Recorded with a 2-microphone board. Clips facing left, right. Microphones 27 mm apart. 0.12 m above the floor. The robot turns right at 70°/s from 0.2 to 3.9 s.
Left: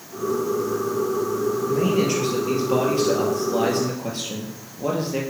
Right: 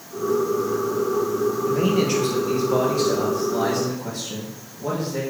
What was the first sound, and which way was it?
A man speaking, 25° right.